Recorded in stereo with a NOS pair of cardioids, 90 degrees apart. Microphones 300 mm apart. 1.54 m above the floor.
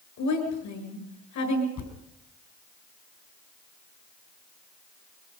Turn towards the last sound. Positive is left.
turn(degrees=65)